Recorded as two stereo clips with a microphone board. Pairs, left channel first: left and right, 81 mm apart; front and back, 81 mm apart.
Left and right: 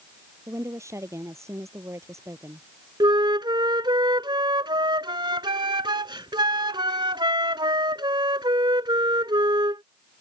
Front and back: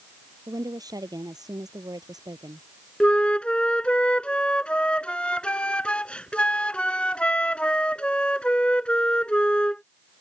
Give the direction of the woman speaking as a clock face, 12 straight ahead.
5 o'clock.